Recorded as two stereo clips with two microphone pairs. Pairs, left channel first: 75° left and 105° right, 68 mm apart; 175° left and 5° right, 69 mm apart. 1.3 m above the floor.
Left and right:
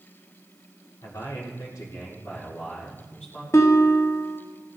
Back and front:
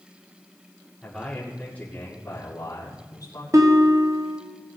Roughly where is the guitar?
Ahead left.